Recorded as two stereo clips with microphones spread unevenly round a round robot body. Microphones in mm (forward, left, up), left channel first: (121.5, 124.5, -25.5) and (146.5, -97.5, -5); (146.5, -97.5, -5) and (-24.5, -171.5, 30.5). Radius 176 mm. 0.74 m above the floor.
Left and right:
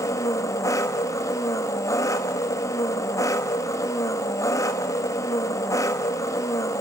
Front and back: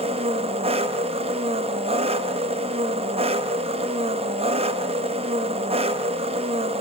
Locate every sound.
0.0 s an engine running: 150° left, 0.7 m